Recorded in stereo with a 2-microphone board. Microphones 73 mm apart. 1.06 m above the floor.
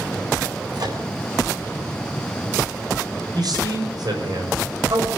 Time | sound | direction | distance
0.7 | a microwave | 60° right (ahead or behind) | 4.5 m
3.3 | a man speaking | 65° right (ahead or behind) | 6 m